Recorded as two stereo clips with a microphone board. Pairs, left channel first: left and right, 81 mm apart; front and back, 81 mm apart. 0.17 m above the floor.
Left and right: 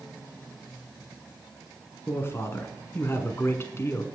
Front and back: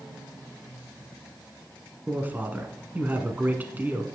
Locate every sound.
2.1 s a man speaking: 125° left, 1.4 m